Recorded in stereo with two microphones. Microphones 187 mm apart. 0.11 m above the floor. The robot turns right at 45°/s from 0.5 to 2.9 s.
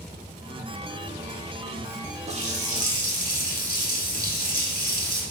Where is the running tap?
35° right (ahead or behind), 1.1 m; by 5.2 s 45° right (ahead or behind), 1.1 m.